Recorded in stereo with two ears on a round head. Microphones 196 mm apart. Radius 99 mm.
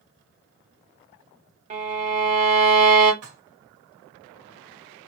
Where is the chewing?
I don't hear chewing.